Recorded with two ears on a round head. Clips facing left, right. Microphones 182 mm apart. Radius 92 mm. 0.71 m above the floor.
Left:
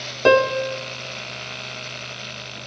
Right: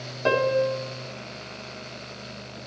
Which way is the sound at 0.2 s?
65° left (ahead or behind).